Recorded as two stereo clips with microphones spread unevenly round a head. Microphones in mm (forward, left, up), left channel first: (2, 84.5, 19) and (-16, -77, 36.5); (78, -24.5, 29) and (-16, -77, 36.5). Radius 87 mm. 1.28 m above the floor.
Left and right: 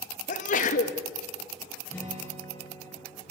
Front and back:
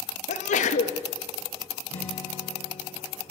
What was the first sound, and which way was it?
A sneeze, 40° left.